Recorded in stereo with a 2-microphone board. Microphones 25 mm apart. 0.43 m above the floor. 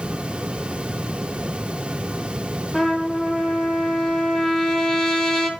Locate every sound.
2.7 s a trumpet: 10° left (ahead or behind), 3.5 m